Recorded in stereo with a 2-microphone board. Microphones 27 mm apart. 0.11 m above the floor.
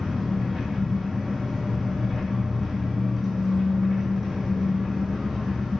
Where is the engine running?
5° right (ahead or behind), 1.8 m.